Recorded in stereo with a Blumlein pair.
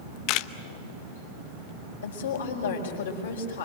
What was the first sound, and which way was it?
A camera shutter, 40° left.